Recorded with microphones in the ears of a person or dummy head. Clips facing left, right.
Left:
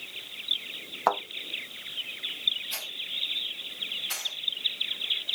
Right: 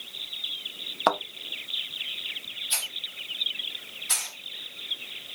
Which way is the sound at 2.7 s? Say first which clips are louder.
Right 3 dB; 55° right (ahead or behind).